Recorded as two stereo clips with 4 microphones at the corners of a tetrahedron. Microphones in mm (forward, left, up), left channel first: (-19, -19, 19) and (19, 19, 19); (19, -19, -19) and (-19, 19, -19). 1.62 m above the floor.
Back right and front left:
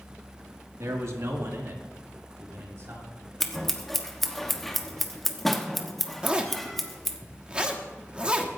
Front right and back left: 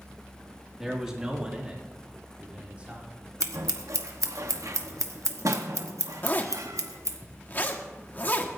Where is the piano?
No piano in this recording.